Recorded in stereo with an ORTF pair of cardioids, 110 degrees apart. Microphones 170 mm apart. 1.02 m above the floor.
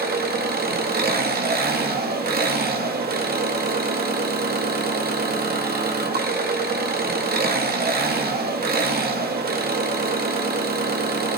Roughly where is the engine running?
Ahead right.